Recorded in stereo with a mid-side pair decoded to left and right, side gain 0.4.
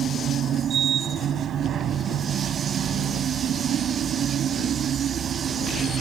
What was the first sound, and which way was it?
A machine running, 65° right.